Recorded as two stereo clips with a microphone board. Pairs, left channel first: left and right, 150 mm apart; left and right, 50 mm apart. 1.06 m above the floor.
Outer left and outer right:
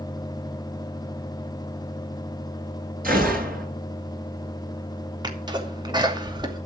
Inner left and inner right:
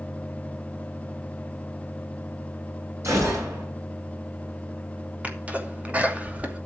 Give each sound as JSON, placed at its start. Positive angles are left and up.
{"t": 3.0, "sound": "a gunshot", "side_deg": -70, "distance_m": 9.0}
{"t": 5.2, "sound": "a sneeze", "side_deg": -30, "distance_m": 2.5}